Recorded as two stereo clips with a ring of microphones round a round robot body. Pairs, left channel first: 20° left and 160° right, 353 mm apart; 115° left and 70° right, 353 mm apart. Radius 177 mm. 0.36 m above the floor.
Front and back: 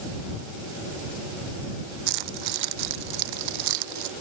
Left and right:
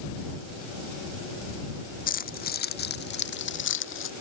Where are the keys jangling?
Straight behind; by 4.1 s 170° left.